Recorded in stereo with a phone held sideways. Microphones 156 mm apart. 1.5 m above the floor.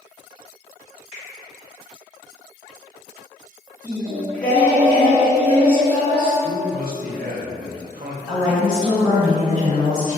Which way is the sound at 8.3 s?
25° right (ahead or behind).